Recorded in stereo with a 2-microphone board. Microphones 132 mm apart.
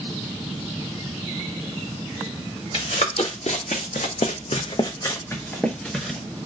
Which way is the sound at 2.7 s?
55° left (ahead or behind).